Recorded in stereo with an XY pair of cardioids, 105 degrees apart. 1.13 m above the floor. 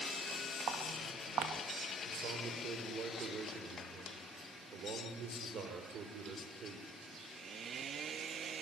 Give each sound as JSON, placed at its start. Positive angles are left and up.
{"t": 0.7, "sound": "footsteps", "azimuth_deg": -70, "distance_m": 5.0}
{"t": 2.0, "sound": "a man speaking", "azimuth_deg": -60, "distance_m": 4.5}